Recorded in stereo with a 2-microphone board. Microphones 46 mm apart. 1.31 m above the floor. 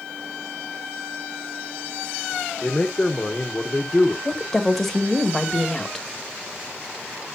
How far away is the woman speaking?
About 1.7 m.